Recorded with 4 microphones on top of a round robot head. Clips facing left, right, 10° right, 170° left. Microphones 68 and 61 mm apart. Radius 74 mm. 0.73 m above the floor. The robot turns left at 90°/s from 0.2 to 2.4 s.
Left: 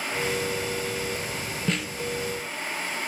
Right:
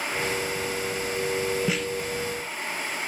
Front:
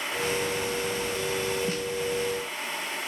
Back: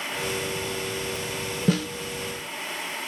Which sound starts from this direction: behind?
A snare drum, at 1.7 s.